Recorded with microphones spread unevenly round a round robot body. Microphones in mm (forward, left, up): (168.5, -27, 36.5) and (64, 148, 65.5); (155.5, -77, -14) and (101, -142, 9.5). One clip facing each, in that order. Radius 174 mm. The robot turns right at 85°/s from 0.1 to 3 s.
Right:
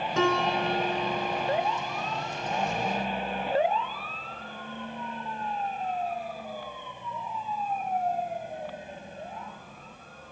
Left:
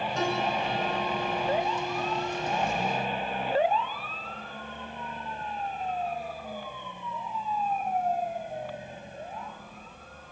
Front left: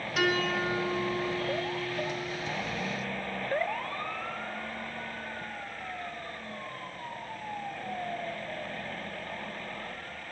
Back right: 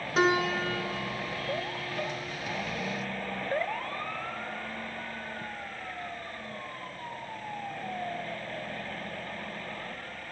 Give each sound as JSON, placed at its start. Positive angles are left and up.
{"t": 0.2, "sound": "a piano", "azimuth_deg": -75, "distance_m": 4.0}